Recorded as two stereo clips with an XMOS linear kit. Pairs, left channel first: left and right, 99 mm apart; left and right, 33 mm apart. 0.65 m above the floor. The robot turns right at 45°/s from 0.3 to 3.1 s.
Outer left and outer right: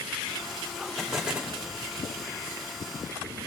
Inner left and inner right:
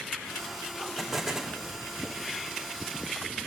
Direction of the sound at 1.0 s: Centre (ahead or behind).